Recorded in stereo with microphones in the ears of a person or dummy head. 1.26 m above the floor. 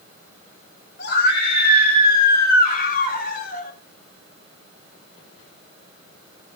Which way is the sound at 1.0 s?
60° left (ahead or behind).